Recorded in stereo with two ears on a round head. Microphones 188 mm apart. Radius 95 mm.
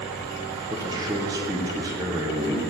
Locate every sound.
0.7 s a man speaking: 15° right (ahead or behind), 0.8 m